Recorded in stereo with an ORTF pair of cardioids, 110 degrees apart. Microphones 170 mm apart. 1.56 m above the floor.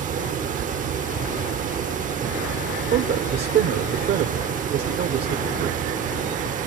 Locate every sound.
0.0 s a fan: 50° right, 0.8 m
2.9 s a man speaking: 65° right, 1.2 m